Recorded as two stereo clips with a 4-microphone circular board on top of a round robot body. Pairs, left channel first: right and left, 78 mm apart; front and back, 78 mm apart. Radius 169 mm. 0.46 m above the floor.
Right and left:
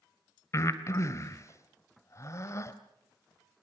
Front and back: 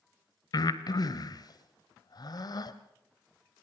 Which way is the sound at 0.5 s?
35° right.